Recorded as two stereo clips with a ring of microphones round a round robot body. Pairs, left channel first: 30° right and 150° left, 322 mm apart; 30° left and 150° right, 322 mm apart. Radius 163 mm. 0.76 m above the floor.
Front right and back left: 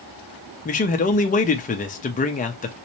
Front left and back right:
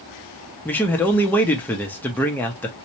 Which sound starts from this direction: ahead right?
A man speaking, at 0.7 s.